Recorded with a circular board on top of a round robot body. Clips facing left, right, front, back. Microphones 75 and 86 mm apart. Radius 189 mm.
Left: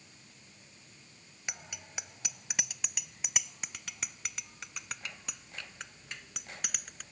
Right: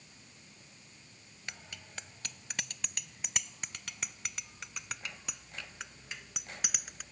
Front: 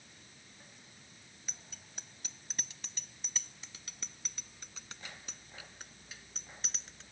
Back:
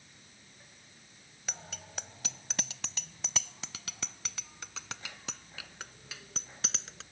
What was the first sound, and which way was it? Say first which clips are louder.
A bicycle bell: left 2 dB, back 11 dB; 165° left.